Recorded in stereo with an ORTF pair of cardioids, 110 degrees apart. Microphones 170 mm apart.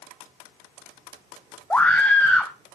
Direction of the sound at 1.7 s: 10° left.